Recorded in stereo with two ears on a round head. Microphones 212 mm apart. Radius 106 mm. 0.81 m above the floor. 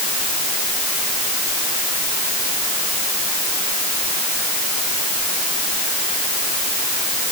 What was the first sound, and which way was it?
Only background noise.